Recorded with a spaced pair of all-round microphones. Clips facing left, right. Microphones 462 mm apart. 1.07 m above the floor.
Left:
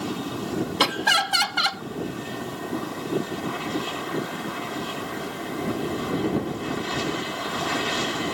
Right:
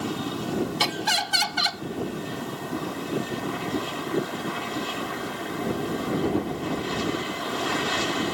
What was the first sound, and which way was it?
Laughter, 65° left (ahead or behind).